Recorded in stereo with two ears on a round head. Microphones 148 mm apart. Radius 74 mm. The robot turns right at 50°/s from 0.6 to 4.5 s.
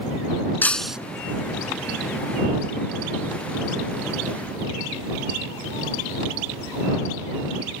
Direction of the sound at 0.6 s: 15° left (ahead or behind).